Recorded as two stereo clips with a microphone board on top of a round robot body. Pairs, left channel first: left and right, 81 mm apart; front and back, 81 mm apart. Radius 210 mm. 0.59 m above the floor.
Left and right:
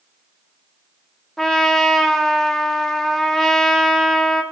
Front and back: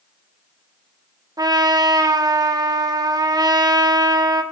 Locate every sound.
1.4 s a trumpet: 175° left, 2 m